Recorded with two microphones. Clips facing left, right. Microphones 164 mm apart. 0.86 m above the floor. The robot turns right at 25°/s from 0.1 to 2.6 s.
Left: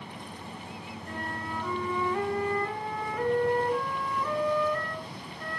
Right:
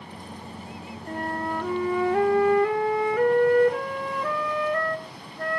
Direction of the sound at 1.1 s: 135° right.